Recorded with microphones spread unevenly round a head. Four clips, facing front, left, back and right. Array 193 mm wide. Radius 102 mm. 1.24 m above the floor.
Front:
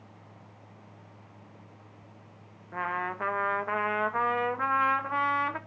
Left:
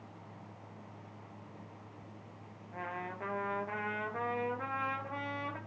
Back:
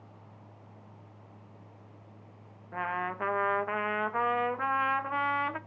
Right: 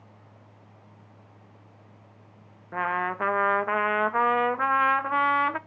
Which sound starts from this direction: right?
A trumpet, at 2.7 s.